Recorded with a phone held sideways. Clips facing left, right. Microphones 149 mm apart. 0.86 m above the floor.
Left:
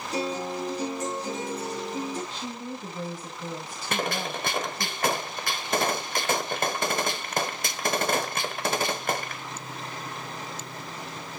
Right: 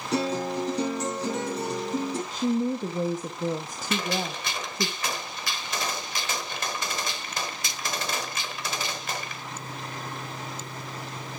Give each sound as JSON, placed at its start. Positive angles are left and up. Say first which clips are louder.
{"t": 0.1, "sound": "a guitar", "louder": "right 3 dB", "side_deg": -75, "distance_m": 4.0}
{"t": 2.3, "sound": "a woman speaking", "louder": "right 10 dB", "side_deg": -45, "distance_m": 0.9}
{"t": 3.9, "sound": "a gunshot", "louder": "even", "side_deg": 50, "distance_m": 1.0}